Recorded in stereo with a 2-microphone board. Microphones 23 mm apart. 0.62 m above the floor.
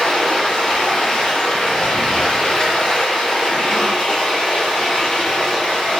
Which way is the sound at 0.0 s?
45° left (ahead or behind).